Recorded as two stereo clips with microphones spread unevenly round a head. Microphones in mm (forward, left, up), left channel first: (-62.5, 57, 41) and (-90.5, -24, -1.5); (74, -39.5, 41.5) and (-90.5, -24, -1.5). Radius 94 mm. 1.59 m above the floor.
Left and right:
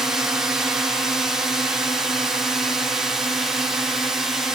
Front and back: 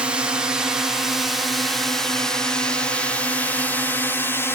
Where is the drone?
135° right; by 4.5 s 95° right.